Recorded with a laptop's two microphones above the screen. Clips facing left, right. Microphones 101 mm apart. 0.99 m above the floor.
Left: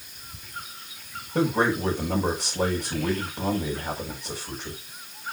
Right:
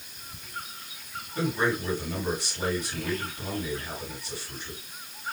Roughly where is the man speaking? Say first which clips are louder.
Left 4 dB; left.